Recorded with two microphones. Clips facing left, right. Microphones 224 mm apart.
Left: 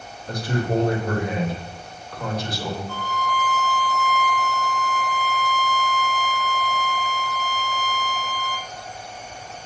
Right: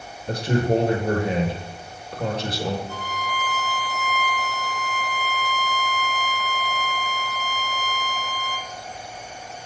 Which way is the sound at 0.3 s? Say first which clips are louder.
Right 3 dB; 30° right (ahead or behind).